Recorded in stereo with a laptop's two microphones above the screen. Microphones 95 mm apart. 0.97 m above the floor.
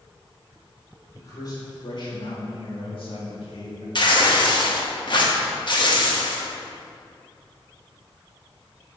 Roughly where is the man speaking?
Left.